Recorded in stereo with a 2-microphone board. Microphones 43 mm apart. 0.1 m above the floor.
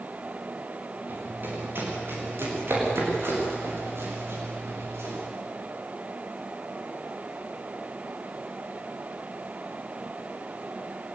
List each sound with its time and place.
1.1 s running footsteps: 50° right (ahead or behind), 8.5 m; by 5.1 s 80° right, 11 m